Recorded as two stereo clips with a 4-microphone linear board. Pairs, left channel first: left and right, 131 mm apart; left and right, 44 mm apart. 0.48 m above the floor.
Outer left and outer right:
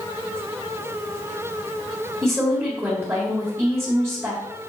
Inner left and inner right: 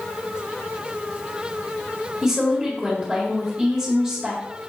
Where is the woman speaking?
20° right (ahead or behind), 1.9 m.